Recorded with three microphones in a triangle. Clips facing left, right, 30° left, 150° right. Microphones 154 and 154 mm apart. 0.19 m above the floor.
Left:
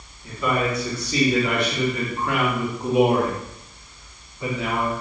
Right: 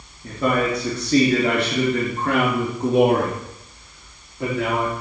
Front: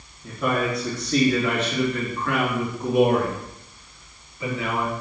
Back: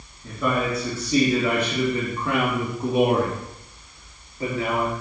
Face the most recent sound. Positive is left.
turn(degrees=-105)